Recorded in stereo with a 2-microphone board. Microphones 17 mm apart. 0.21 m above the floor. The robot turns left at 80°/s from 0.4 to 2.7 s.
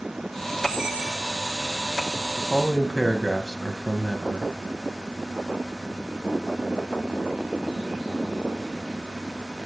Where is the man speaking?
5° left (ahead or behind), 1.1 m; by 4.5 s 10° left (ahead or behind), 1.1 m.